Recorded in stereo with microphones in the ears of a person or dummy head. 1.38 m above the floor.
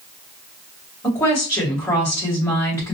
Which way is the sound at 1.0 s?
20° left (ahead or behind).